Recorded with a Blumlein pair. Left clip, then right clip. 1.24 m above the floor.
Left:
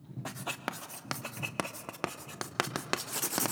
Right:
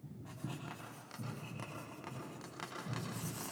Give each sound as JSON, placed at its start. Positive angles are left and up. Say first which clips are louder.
{"t": 0.2, "sound": "writing", "louder": "left 11 dB", "azimuth_deg": 40, "distance_m": 1.1}